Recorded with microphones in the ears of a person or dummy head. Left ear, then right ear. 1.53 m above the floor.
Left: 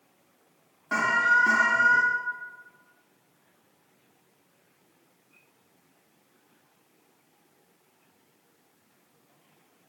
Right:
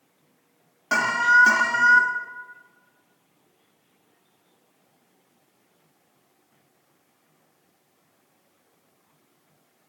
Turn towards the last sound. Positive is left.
turn(degrees=-30)  # may be behind; listen again after turning